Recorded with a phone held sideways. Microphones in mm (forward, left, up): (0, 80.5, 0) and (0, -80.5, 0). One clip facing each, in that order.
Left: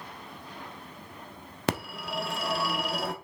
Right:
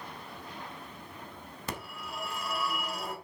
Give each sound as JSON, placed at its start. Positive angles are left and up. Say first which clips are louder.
{"t": 1.7, "sound": "a phone ringing", "louder": "left 10 dB", "side_deg": 75, "distance_m": 1.1}